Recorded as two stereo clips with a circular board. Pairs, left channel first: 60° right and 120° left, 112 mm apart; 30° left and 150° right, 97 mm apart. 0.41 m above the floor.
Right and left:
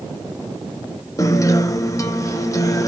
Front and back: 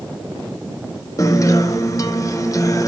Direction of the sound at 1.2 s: 10° right.